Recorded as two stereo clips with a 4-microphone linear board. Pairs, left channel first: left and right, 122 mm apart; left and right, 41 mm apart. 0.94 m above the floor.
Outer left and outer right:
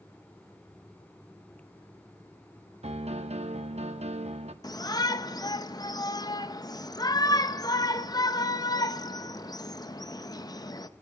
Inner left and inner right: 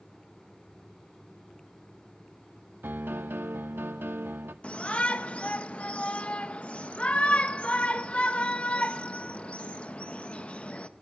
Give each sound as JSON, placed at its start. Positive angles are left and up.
{"t": 2.8, "sound": "a piano", "side_deg": -60, "distance_m": 0.7}
{"t": 4.6, "sound": "a shout", "side_deg": 30, "distance_m": 0.7}